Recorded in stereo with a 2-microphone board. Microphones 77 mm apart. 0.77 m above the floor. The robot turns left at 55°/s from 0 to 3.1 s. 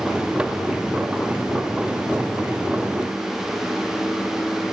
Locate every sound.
Only background noise.